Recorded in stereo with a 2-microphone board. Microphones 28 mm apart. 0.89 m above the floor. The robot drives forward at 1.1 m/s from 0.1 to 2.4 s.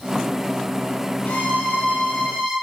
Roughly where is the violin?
Left.